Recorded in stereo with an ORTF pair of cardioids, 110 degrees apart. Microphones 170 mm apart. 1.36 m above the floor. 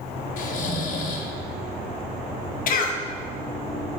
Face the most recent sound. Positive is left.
turn(degrees=55)